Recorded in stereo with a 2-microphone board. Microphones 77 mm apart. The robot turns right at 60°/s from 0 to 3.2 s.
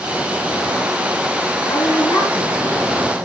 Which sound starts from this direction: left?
A woman speaking, at 1.7 s.